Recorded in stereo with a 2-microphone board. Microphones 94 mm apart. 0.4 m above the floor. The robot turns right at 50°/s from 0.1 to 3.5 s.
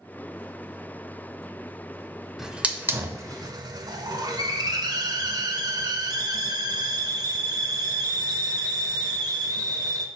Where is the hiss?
175° right, 0.6 m; by 10.1 s 120° right, 0.6 m.